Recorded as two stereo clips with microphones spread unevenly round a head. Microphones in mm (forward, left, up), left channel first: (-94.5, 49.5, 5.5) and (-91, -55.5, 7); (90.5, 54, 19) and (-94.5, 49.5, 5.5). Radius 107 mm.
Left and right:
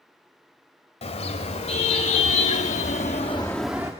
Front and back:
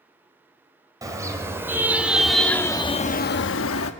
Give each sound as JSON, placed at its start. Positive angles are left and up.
{"t": 1.0, "sound": "a car horn", "azimuth_deg": 110, "distance_m": 3.5}